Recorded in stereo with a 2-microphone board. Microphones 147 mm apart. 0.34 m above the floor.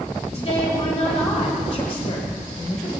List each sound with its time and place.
0.3 s a woman speaking: 50° left (ahead or behind), 1.6 m